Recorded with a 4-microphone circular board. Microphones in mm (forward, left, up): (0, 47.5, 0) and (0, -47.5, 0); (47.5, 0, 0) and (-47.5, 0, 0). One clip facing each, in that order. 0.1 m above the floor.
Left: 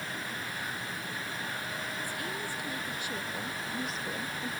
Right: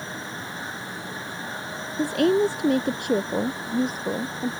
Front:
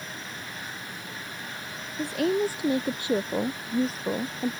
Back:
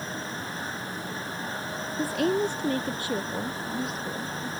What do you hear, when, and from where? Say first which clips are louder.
2.0 s a woman speaking: right 17 dB, even; 95° right; by 4.5 s 40° right